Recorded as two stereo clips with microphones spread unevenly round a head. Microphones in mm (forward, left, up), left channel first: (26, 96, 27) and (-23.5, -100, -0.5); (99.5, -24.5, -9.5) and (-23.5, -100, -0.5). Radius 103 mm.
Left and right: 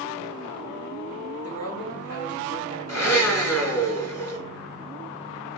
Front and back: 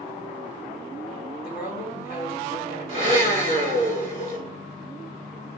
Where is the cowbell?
50° left, 4.5 m.